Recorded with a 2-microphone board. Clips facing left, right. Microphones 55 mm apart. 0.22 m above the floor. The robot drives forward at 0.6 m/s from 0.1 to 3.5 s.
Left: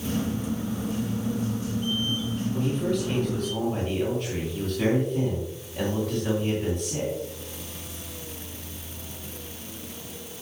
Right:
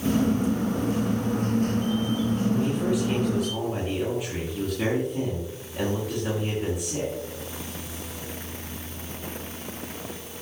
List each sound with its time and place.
2.5 s a man speaking: 10° right (ahead or behind), 2.5 m